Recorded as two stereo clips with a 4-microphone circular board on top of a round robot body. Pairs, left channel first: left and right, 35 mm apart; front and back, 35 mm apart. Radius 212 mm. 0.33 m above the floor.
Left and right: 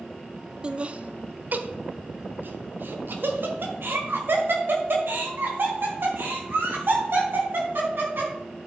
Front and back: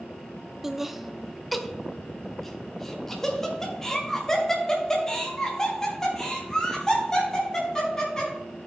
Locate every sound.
0.6 s laughter: 115° right, 0.9 m; by 8.3 s 75° right, 4 m